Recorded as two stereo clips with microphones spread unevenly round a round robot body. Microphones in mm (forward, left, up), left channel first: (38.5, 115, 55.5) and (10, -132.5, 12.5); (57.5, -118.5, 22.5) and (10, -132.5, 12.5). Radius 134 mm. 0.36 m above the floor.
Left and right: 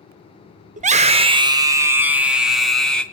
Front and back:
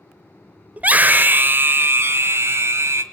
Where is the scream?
130° right, 1.2 m; by 3.0 s 175° left, 2.0 m.